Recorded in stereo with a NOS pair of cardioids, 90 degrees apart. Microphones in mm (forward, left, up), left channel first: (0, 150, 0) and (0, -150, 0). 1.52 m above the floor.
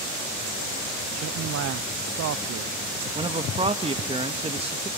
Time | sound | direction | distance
1.2 | a man speaking | 55° right | 0.7 m
3.1 | a man speaking | 20° right | 1.9 m